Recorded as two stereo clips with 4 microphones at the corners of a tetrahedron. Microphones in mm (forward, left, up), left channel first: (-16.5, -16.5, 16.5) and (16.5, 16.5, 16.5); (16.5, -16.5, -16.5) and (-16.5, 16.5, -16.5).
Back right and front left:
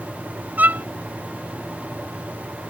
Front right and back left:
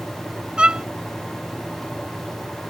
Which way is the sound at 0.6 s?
70° left.